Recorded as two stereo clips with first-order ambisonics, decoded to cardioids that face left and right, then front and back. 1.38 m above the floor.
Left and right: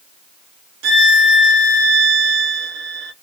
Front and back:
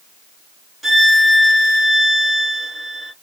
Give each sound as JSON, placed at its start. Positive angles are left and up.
{"t": 0.8, "sound": "a violin", "azimuth_deg": -90, "distance_m": 1.0}